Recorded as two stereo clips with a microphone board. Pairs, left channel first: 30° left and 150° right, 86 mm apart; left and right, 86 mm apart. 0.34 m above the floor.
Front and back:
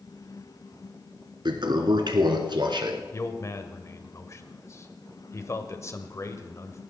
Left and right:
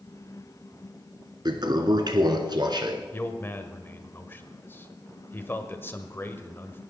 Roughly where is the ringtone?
No ringtone in this recording.